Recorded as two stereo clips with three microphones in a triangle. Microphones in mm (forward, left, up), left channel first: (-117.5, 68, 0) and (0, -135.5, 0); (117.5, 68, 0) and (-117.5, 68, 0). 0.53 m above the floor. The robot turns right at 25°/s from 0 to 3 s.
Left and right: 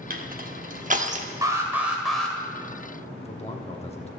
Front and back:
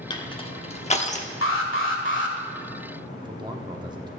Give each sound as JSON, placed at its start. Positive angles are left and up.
{"t": 0.1, "sound": "crushing", "azimuth_deg": -55, "distance_m": 0.9}
{"t": 1.4, "sound": "an alarm", "azimuth_deg": 15, "distance_m": 1.6}
{"t": 3.2, "sound": "a man speaking", "azimuth_deg": 135, "distance_m": 1.0}